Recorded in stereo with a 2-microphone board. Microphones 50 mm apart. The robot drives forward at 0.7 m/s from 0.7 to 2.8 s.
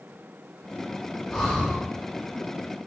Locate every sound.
1.3 s breathing: 5° left (ahead or behind), 3 m